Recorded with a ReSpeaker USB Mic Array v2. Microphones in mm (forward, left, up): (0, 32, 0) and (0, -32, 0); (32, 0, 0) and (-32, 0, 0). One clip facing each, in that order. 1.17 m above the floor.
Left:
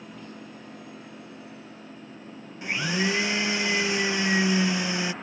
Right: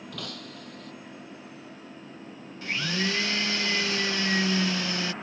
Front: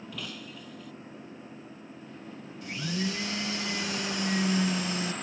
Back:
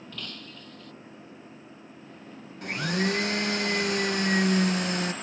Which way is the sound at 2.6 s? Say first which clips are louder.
Left 3 dB, back 5 dB; 160° left.